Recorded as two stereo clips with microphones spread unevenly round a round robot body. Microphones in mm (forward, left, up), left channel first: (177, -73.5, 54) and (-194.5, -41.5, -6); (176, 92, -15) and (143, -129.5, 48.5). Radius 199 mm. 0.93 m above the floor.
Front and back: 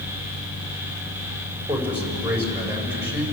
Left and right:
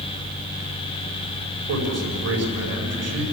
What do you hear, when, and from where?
1.7 s a man speaking: 100° right, 5 m